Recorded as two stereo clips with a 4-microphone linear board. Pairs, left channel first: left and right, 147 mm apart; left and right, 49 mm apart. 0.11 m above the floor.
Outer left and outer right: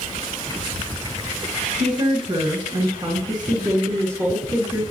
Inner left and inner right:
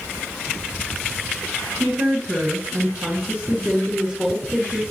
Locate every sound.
1.8 s a woman speaking: 40° right (ahead or behind), 1.5 m; by 4.8 s 10° right (ahead or behind), 1.7 m